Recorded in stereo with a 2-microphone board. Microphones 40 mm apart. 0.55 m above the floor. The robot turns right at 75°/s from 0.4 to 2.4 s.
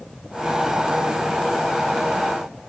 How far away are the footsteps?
No footsteps in this recording.